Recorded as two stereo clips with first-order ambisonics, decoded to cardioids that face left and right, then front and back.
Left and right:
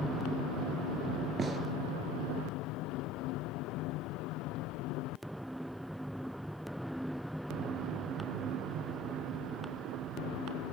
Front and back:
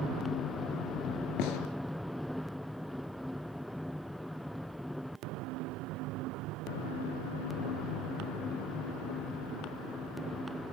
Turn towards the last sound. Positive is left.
turn(degrees=-20)